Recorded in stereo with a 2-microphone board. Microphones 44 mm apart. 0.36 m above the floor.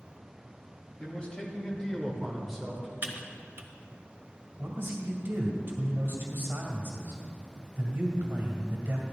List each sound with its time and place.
1.0 s a man speaking: 25° left (ahead or behind), 2.5 m; by 2.9 s 10° right (ahead or behind), 1.7 m
3.0 s typing on a keyboard: 55° right (ahead or behind), 0.8 m
4.6 s a man speaking: 55° right (ahead or behind), 2.0 m